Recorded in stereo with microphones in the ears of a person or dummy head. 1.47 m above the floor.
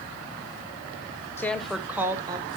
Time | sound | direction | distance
1.4 | a woman speaking | 15° left (ahead or behind) | 0.7 m